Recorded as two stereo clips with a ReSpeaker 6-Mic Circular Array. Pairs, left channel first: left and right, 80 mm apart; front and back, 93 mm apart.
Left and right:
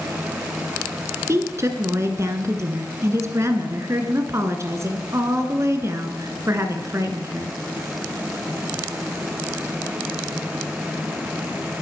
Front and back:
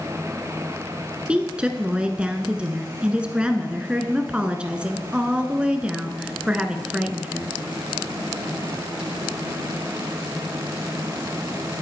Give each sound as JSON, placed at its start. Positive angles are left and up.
{"t": 1.3, "sound": "a woman speaking", "azimuth_deg": -110, "distance_m": 1.4}